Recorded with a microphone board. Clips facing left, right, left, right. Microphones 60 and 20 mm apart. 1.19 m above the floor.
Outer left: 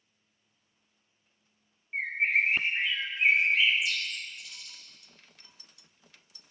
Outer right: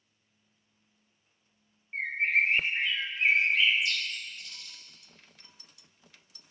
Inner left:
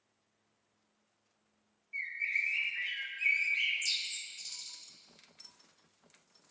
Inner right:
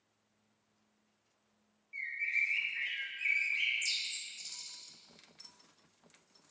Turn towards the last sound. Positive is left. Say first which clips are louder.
# even, even
turn(degrees=5)  # may be behind; listen again after turning